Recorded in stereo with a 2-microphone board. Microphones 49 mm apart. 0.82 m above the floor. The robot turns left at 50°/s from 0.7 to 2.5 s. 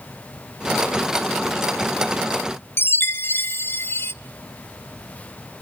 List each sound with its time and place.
2.8 s a chime: 45° left (ahead or behind), 0.6 m